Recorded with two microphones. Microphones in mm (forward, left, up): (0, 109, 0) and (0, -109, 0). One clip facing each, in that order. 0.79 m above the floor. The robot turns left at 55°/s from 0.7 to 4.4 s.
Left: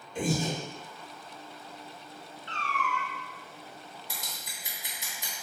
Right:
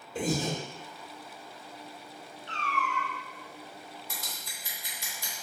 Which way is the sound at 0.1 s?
40° right (ahead or behind).